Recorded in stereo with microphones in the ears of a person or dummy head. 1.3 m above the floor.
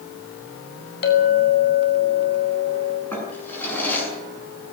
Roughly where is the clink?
Left.